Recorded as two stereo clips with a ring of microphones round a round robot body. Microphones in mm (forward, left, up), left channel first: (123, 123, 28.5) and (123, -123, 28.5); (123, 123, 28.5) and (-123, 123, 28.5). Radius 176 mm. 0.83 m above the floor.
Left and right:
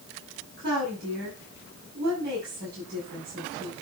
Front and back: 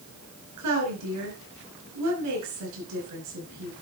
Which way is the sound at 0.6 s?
150° right.